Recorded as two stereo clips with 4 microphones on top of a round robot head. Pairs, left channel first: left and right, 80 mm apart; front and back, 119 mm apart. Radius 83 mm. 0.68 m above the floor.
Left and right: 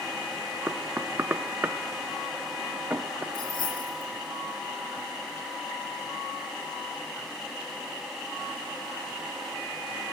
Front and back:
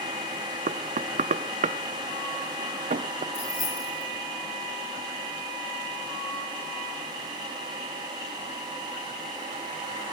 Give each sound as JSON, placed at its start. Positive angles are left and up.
{"t": 0.7, "sound": "knocking", "azimuth_deg": -160, "distance_m": 0.7}
{"t": 3.3, "sound": "keys jangling", "azimuth_deg": 70, "distance_m": 8.0}